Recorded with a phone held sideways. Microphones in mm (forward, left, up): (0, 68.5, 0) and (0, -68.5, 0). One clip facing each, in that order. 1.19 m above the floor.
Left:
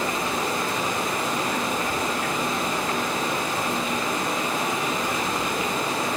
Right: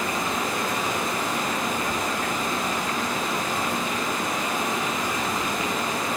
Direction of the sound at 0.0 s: 30° left (ahead or behind).